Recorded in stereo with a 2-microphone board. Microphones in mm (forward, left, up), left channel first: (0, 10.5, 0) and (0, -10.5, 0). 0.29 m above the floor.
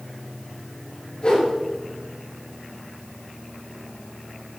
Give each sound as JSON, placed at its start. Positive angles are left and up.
{"t": 1.2, "sound": "a whoosh", "side_deg": 55, "distance_m": 4.5}